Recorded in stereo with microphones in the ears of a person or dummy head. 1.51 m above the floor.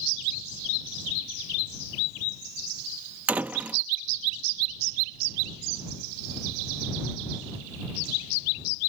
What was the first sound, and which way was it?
A door slam, 10° right (ahead or behind).